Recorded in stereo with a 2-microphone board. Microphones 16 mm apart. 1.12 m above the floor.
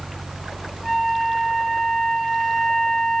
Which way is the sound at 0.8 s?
45° left (ahead or behind).